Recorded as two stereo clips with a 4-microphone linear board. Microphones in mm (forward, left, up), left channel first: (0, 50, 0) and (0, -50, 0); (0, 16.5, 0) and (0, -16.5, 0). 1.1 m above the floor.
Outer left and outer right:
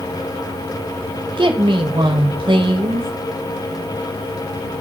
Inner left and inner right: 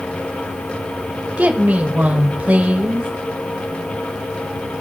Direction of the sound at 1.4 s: 55° right (ahead or behind).